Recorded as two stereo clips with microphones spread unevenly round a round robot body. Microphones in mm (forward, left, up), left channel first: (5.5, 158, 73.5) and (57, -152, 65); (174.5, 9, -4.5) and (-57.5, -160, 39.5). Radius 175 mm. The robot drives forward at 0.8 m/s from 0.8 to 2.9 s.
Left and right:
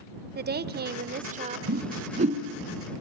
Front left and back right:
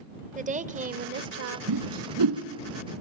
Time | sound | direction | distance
0.3 | a woman speaking | 90° right | 1.1 m
1.7 | a whoosh | 140° right | 1.2 m